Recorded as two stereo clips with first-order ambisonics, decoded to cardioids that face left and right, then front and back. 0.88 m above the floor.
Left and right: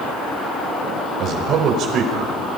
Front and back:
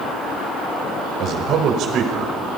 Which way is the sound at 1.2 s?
135° right.